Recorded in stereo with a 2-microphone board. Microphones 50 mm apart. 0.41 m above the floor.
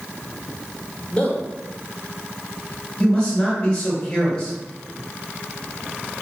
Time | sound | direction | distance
1.1 | a man speaking | 25° left (ahead or behind) | 0.8 m
3.0 | a man speaking | 20° left (ahead or behind) | 1.8 m